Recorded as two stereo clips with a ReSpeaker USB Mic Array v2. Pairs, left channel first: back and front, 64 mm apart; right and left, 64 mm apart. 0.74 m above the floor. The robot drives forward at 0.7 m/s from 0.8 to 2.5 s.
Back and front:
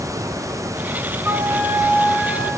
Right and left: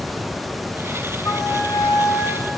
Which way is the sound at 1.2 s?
55° right.